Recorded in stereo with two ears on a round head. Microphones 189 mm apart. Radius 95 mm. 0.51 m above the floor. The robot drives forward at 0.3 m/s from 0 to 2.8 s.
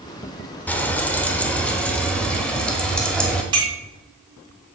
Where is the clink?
20° right (ahead or behind), 3 m.